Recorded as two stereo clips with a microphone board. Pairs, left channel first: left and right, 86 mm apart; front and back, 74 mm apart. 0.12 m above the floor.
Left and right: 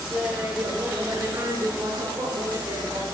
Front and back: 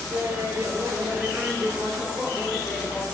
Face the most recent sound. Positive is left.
turn(degrees=-75)